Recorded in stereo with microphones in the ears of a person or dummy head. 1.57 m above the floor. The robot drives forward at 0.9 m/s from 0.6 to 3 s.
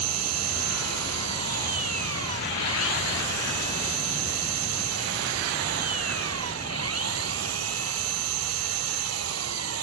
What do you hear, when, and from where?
0.0 s an engine running: 75° right (ahead or behind); by 9.8 s 70° right (ahead or behind)